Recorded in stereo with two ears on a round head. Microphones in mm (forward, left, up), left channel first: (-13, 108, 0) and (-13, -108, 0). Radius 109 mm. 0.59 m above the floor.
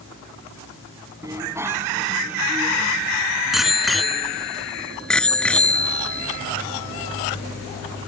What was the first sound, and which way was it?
A bicycle bell, 15° right (ahead or behind).